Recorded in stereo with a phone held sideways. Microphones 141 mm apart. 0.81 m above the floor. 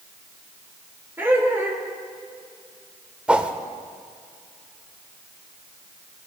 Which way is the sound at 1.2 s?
15° right (ahead or behind).